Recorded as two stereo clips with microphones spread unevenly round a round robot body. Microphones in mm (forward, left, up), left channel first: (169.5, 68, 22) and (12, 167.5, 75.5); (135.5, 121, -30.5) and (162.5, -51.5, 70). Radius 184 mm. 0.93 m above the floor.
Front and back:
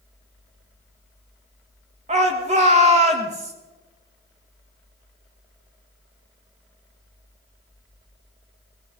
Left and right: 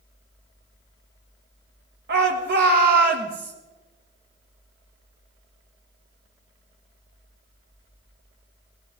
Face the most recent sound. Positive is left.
turn(degrees=-145)